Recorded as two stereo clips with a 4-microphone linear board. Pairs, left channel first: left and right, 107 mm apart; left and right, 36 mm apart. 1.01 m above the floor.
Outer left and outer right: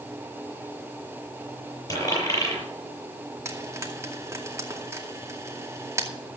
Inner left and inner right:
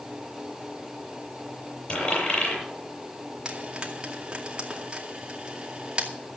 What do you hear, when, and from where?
1.9 s a dropped coin: 35° left (ahead or behind), 8 m
3.5 s frying: 25° right (ahead or behind), 2.5 m